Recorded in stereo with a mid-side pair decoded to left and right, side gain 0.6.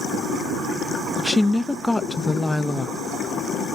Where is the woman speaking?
10° left, 0.7 m.